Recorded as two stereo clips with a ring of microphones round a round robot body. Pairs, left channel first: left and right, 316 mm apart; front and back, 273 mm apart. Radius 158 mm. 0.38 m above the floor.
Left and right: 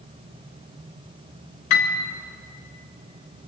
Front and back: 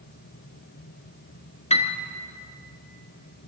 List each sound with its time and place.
1.7 s a piano: 70° left, 1.8 m